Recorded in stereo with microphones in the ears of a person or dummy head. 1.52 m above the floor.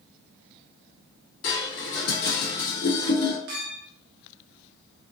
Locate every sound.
1.4 s dishes clattering: 65° left (ahead or behind), 1.5 m
3.5 s a clink: 60° right (ahead or behind), 0.7 m